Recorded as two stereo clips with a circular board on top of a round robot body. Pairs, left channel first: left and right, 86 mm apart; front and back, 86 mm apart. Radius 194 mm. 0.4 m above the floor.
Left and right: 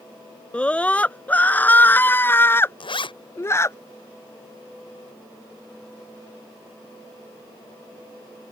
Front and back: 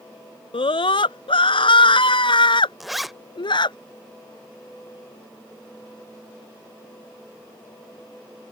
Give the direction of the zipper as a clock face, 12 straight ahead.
9 o'clock.